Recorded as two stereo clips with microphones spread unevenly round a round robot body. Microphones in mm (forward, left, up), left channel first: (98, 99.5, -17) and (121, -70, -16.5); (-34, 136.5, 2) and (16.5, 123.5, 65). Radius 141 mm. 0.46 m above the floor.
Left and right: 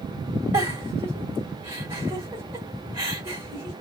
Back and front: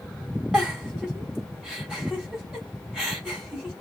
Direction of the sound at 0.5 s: 160° right.